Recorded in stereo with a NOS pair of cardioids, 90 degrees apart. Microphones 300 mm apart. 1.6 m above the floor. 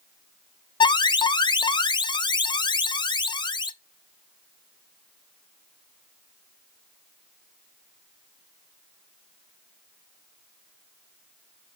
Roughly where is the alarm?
Ahead.